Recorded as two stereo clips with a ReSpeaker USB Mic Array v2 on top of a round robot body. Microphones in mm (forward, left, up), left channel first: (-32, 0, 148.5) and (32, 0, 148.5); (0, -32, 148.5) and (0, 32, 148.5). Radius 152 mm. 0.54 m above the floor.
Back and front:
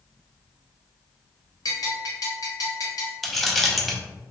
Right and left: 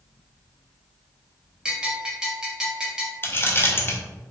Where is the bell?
170° left, 1.0 m.